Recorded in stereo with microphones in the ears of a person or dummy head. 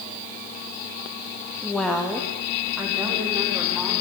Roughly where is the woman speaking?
Centre.